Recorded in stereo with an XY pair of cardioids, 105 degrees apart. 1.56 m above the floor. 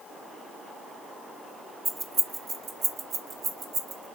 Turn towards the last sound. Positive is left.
turn(degrees=-70)